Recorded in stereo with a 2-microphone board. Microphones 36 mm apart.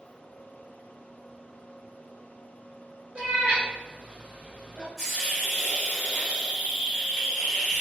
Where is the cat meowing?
30° right (ahead or behind), 0.8 m.